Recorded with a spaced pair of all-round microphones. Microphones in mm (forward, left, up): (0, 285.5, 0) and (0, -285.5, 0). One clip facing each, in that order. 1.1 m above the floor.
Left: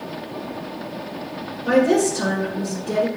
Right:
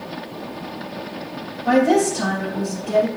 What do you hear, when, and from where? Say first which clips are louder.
1.6 s a woman speaking: even; 25° right (ahead or behind), 2.0 m